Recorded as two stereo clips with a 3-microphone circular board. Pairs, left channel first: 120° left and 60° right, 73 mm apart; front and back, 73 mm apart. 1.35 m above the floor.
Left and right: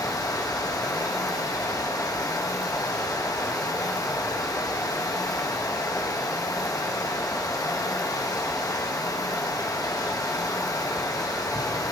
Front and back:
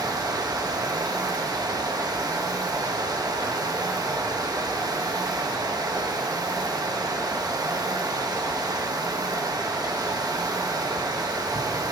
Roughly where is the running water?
Behind left.